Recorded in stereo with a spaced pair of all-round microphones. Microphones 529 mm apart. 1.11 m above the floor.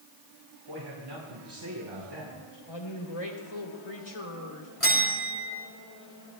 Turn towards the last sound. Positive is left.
turn(degrees=75)  # may be behind; listen again after turning